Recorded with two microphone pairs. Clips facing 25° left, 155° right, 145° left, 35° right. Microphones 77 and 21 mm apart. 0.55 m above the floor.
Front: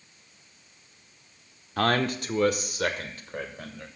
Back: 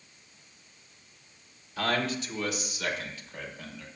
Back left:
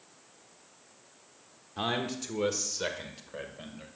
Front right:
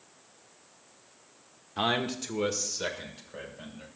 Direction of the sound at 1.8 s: 35° left.